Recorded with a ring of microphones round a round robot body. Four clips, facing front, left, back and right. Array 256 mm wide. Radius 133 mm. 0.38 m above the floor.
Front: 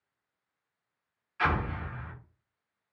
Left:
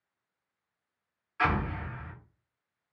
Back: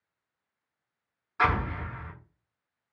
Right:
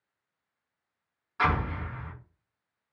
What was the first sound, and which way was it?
An explosion, 155° right.